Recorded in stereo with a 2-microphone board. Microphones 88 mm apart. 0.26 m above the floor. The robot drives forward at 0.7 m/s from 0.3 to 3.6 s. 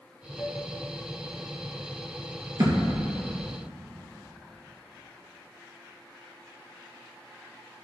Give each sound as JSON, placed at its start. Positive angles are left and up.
{"t": 0.4, "sound": "a flute", "side_deg": -45, "distance_m": 1.5}
{"t": 2.6, "sound": "a thud", "side_deg": -40, "distance_m": 1.7}